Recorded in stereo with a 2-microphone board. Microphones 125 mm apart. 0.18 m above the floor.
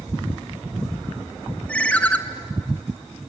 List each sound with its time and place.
1.7 s a ringtone: 10° left (ahead or behind), 1.3 m